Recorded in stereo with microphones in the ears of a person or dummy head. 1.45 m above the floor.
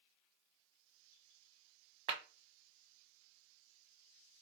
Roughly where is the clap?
Right.